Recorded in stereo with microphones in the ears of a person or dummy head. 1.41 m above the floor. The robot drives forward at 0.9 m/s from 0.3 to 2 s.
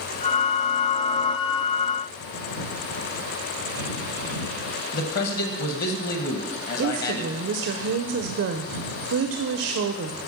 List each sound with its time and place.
4.9 s a man speaking: 55° left (ahead or behind), 1.1 m
6.8 s a woman speaking: 65° right (ahead or behind), 0.5 m